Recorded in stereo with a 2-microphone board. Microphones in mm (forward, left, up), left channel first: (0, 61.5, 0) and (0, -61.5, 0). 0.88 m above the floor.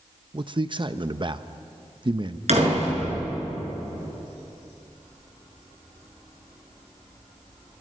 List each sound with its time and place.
0.3 s a man speaking: 40° right (ahead or behind), 0.8 m
2.5 s a door slam: 65° right (ahead or behind), 7.5 m